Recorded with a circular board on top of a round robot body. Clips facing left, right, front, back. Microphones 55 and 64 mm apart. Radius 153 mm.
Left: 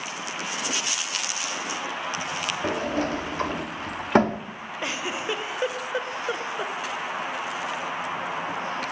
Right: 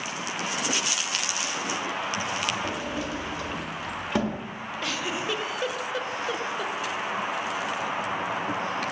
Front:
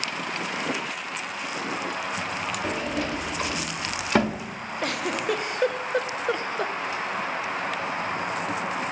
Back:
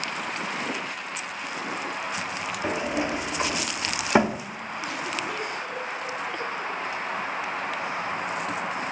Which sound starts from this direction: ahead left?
A giggle, at 4.8 s.